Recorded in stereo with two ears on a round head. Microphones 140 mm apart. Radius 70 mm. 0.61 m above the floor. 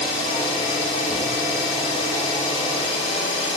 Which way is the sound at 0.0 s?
35° left (ahead or behind).